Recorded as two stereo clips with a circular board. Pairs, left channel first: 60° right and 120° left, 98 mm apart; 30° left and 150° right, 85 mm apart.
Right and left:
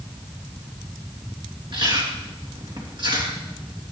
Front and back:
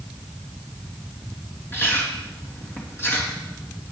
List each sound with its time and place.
1.7 s chewing: 90° left, 3 m